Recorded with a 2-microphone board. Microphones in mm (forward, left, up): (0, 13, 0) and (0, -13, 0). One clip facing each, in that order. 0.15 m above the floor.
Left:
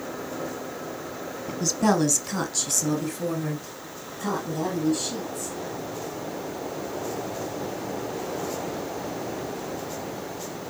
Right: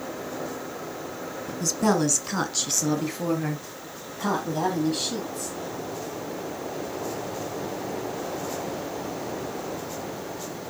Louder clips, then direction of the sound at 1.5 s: Left 1 dB; 20° left (ahead or behind).